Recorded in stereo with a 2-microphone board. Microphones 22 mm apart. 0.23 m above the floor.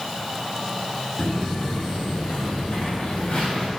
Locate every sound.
1.2 s footsteps: 55° left (ahead or behind), 4.5 m; by 3.7 s 65° left (ahead or behind), 5.5 m